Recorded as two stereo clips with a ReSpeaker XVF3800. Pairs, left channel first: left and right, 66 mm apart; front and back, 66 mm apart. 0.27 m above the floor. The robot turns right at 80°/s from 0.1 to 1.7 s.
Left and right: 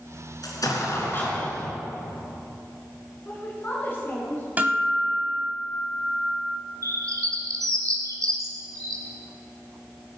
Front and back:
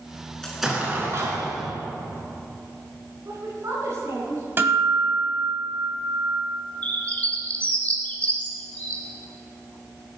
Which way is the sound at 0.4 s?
80° left.